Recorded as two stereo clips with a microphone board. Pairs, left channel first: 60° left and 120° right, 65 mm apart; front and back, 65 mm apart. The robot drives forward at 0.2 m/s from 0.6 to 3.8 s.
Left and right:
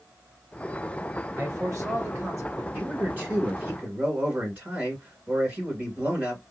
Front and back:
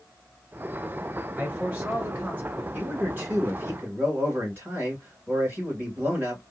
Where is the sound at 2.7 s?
155° right, 1.9 m; by 6.4 s 160° right, 2 m.